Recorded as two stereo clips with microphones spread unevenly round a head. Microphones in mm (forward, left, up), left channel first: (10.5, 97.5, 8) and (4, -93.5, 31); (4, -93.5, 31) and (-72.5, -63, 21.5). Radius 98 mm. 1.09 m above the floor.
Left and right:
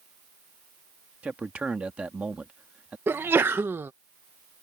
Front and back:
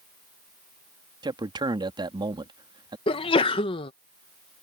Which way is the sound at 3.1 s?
10° right.